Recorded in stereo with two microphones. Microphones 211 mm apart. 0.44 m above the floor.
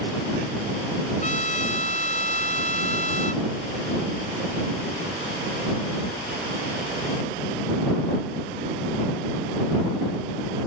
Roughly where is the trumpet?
Left.